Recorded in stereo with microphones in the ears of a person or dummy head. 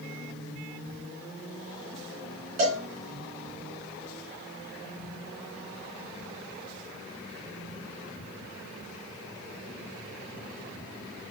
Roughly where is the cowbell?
Right.